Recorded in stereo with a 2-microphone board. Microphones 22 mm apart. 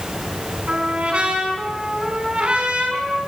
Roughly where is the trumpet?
Right.